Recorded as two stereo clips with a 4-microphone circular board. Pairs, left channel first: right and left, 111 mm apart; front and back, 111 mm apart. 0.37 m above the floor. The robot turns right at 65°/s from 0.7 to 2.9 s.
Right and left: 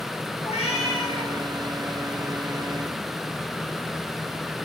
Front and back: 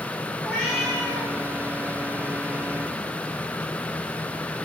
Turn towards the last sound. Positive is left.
turn(degrees=45)